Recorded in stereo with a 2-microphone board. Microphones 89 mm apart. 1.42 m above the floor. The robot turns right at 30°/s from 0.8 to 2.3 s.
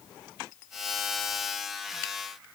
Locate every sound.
Only background noise.